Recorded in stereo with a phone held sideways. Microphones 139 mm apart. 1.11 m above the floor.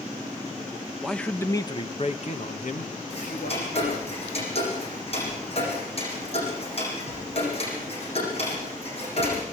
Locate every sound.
1.0 s a man speaking: centre (ahead or behind), 1.3 m; by 4.1 s 80° left, 3 m
3.1 s ticking: 45° left (ahead or behind), 10 m